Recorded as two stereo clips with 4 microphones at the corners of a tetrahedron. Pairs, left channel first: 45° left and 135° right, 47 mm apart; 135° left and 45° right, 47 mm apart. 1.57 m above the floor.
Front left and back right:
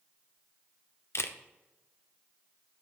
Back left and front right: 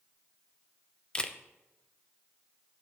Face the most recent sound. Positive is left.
turn(degrees=65)